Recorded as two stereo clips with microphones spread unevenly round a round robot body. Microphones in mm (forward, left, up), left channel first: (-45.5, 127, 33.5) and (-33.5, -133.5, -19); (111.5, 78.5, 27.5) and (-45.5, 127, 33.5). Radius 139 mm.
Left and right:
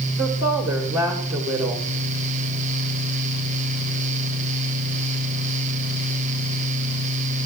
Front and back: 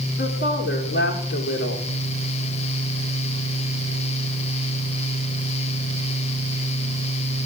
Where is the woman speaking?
5° right, 2.0 m.